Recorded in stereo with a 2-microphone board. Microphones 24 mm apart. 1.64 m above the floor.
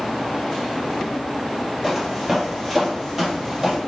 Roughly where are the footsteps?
Centre.